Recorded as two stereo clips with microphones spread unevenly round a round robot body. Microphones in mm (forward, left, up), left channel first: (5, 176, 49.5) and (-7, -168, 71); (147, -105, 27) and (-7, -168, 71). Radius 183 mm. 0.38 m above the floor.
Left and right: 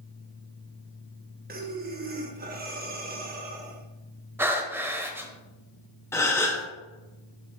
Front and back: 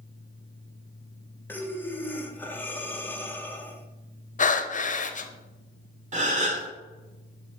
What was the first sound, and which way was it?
Breathing, 35° right.